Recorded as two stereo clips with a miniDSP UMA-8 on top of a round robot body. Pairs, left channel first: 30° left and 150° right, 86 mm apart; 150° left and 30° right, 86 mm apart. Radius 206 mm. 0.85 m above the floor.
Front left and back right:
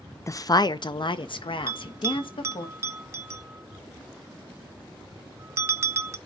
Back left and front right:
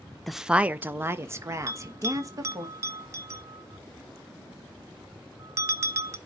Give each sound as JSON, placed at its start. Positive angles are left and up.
{"t": 0.3, "sound": "a woman speaking", "azimuth_deg": 65, "distance_m": 0.8}
{"t": 1.7, "sound": "a bell", "azimuth_deg": -90, "distance_m": 0.5}